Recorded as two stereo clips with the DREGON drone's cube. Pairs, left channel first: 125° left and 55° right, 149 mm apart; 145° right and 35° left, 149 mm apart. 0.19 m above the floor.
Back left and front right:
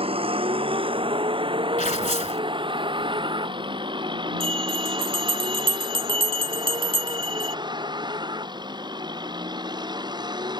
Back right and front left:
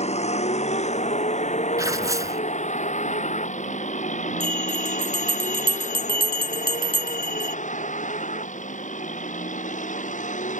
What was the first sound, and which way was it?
A vehicle, 105° right.